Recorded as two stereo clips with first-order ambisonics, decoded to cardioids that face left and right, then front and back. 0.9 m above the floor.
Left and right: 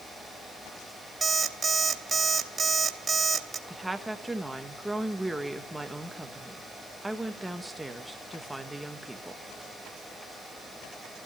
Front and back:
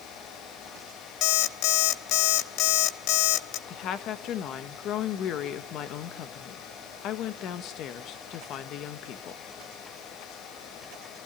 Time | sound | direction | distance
1.2 | an alarm clock | 20° right | 1.0 m
3.7 | a woman speaking | 5° right | 1.0 m